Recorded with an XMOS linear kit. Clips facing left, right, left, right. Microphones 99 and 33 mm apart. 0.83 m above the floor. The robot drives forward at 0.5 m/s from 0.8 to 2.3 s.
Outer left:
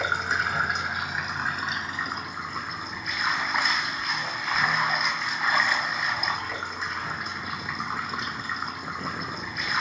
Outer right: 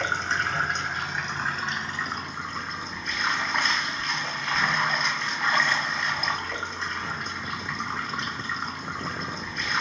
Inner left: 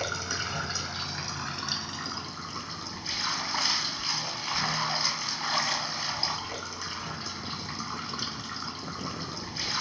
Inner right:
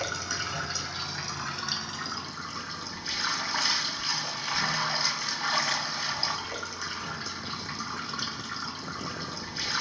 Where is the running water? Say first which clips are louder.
Even, even; 5° left (ahead or behind), 1.2 m.